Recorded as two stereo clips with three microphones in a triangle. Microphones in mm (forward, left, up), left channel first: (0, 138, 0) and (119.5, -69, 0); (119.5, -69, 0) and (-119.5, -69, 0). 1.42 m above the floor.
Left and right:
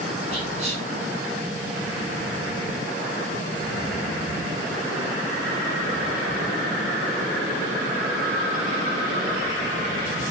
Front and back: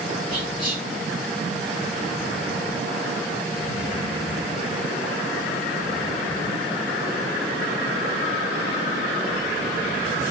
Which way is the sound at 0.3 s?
Straight ahead.